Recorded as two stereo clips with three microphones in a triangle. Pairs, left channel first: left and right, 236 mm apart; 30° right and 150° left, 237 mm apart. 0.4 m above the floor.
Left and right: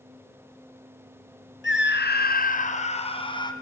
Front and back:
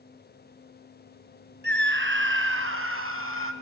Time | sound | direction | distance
1.6 | a scream | 115° left | 3 m